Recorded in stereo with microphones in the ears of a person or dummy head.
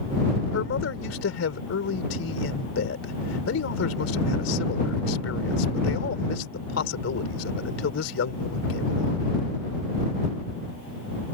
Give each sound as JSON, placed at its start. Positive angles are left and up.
{"t": 0.5, "sound": "a man speaking", "side_deg": 75}